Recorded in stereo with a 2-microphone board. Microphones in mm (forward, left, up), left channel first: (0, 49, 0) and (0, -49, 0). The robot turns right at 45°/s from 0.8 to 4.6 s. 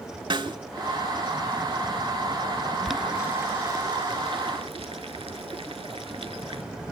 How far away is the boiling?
About 0.5 m.